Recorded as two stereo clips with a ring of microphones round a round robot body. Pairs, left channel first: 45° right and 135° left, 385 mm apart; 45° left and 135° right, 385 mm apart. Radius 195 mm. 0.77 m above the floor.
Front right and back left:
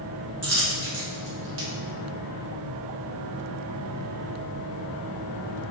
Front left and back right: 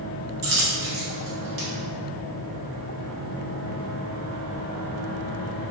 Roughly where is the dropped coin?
Behind.